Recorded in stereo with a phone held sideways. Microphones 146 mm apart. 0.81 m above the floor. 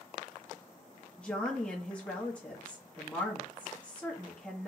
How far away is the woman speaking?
About 0.9 m.